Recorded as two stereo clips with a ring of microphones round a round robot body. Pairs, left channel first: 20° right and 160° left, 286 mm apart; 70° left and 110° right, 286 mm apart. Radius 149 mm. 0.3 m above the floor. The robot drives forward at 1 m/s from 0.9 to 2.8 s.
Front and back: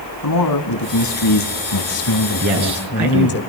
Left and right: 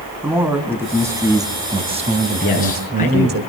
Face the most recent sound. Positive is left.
turn(degrees=130)